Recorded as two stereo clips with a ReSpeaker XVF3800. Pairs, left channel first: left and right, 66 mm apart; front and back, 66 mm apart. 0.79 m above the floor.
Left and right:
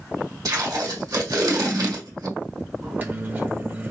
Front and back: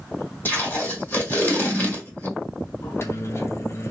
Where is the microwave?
35° right, 0.9 m.